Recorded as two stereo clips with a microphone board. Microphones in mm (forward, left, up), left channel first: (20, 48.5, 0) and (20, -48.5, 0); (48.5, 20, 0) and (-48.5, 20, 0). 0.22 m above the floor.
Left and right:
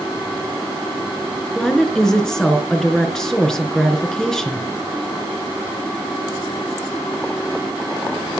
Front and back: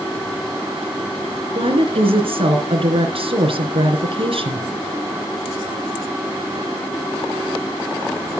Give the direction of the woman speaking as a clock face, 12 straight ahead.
6 o'clock.